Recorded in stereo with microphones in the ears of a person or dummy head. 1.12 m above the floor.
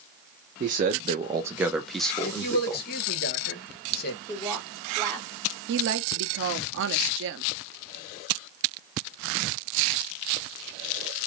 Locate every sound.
0.6 s a man speaking: 40° right (ahead or behind), 0.9 m; by 2.9 s 15° left (ahead or behind), 1.6 m
2.2 s a man speaking: 50° left (ahead or behind), 1.3 m
4.3 s a woman speaking: 20° left (ahead or behind), 1.9 m
5.7 s a woman speaking: 65° right (ahead or behind), 0.8 m